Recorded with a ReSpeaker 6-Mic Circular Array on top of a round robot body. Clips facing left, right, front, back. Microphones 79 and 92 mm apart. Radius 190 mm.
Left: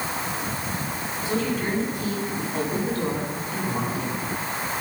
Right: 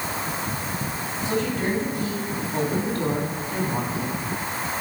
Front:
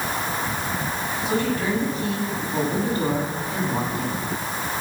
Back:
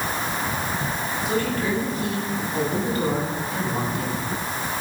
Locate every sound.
1.2 s a woman speaking: 60° right, 9.5 m